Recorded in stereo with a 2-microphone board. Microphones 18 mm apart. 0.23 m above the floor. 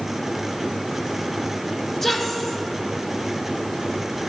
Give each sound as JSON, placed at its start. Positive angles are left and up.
{"t": 2.0, "sound": "a woman speaking", "side_deg": 20, "distance_m": 1.1}